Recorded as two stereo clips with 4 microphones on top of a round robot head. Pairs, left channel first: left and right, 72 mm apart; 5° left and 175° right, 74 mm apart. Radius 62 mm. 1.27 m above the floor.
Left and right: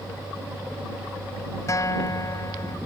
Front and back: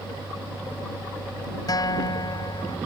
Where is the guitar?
45° left.